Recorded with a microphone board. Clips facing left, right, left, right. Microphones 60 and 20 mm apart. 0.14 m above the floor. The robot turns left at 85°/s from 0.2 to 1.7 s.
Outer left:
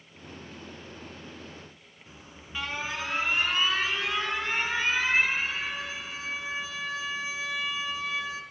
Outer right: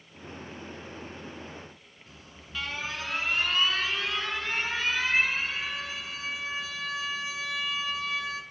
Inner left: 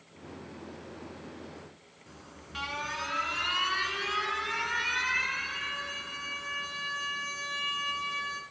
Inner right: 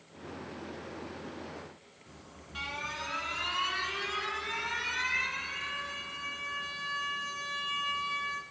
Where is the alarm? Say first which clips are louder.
Outer left 2 dB, inner left 3 dB; 20° left (ahead or behind), 1.1 m.